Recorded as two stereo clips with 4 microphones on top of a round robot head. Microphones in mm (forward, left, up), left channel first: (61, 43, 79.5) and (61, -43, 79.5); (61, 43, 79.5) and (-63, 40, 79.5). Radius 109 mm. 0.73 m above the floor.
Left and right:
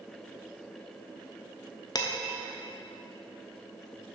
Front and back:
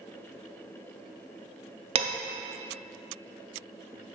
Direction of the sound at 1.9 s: 140° left.